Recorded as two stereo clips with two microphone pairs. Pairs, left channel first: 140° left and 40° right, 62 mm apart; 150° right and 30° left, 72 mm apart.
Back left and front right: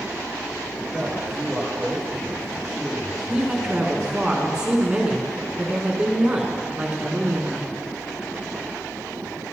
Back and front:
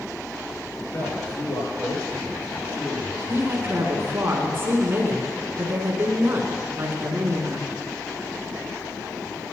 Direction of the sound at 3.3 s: 25° left.